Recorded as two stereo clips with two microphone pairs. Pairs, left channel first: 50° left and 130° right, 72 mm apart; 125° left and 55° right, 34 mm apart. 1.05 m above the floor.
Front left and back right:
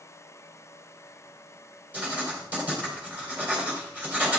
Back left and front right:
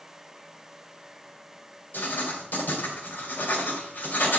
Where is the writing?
160° left, 2.5 m.